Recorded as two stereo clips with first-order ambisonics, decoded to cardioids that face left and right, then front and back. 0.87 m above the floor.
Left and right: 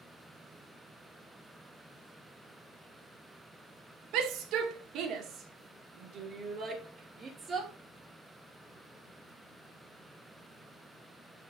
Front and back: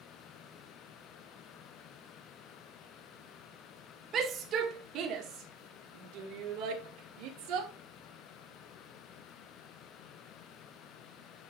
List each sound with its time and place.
4.1 s a shout: 120° right, 2 m; by 7.7 s 160° right, 3.5 m